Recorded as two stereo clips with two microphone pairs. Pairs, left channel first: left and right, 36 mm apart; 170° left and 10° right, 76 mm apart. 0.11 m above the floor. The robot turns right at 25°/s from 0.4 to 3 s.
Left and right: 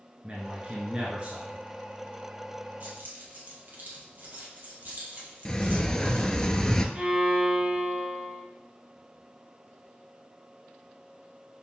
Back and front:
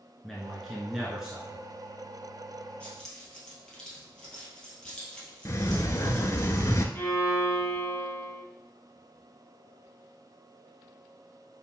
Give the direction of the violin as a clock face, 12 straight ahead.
4 o'clock.